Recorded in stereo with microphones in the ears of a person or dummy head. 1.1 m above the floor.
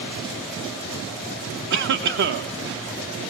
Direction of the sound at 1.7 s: 55° right (ahead or behind).